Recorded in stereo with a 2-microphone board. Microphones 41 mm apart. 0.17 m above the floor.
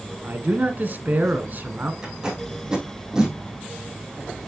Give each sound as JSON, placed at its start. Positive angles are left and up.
{"t": 0.2, "sound": "a man speaking", "side_deg": -50, "distance_m": 1.5}
{"t": 2.0, "sound": "tape being pulled", "side_deg": -15, "distance_m": 4.0}